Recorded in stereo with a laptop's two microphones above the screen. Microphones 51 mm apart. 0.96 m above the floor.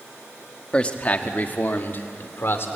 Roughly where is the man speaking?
Left.